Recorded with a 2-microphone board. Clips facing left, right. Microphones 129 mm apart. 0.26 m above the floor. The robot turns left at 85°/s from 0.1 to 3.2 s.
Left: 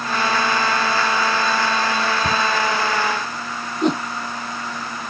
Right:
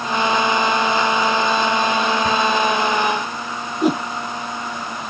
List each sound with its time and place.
2.2 s a cupboard door: 30° left (ahead or behind); by 2.5 s 15° left (ahead or behind)
3.8 s a whoosh: 5° right (ahead or behind)